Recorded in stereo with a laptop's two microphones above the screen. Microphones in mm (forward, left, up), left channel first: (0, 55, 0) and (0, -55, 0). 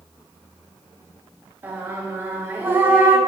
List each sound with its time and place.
1.6 s singing: 15° right (ahead or behind), 1.3 m